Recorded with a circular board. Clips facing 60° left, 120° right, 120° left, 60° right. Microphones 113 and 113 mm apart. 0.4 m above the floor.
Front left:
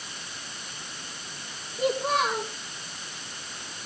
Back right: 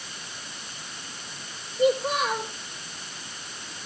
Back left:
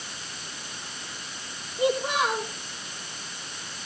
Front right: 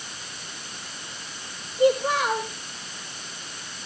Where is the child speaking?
50° left, 7 m.